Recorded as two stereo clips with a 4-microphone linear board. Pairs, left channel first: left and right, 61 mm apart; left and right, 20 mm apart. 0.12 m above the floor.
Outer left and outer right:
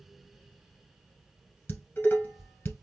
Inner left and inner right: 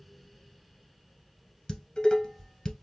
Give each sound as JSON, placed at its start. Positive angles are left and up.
{"t": 1.7, "sound": "dishes clattering", "side_deg": 30, "distance_m": 1.2}